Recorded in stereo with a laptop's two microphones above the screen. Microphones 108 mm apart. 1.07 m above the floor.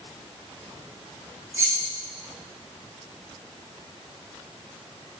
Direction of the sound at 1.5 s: 25° right (ahead or behind).